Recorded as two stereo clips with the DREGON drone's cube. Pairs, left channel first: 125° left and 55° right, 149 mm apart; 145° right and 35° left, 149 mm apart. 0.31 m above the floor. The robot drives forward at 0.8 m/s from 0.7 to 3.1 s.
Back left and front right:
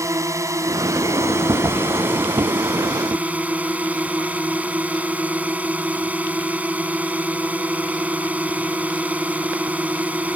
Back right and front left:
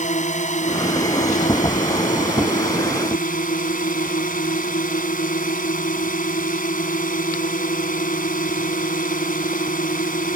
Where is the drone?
125° right; by 10.4 s 135° right.